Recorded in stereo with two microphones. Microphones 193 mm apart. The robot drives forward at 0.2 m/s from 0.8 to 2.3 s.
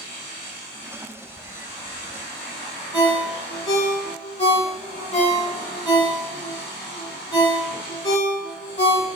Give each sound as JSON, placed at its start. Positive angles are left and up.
{"t": 2.9, "sound": "a ringtone", "side_deg": 30, "distance_m": 1.1}